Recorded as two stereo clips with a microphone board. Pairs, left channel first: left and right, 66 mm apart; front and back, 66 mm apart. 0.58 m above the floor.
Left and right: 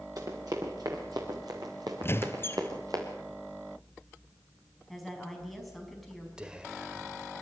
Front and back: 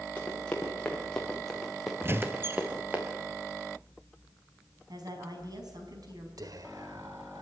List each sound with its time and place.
0.2 s running footsteps: 70° right, 5.5 m; by 3.0 s 115° right, 4 m
2.0 s a squeak: 135° left, 0.9 m
4.9 s a woman speaking: straight behind, 4.5 m
6.4 s whispering: 165° right, 1.7 m